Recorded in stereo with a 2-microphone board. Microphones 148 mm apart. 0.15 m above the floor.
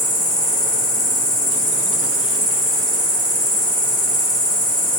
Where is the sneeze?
No sneeze in this recording.